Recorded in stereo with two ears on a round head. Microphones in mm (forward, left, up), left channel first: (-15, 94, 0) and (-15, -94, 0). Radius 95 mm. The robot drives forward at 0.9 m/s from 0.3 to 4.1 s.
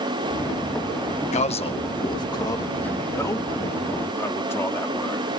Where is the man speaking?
35° left (ahead or behind); by 5.3 s 10° left (ahead or behind).